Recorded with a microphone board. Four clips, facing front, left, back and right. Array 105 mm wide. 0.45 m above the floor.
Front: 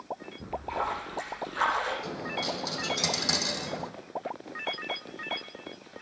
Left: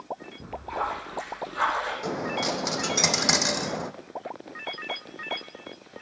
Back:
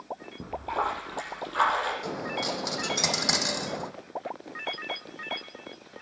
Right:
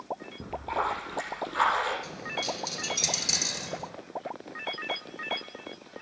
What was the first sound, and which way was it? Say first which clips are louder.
A splash: right 1 dB, back 3 dB; 155° right.